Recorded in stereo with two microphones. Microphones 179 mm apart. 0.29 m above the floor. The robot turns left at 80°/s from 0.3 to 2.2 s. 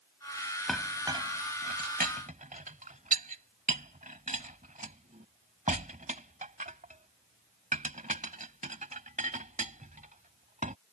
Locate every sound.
0.7 s a clink: 5° left (ahead or behind); by 10.8 s 45° right (ahead or behind)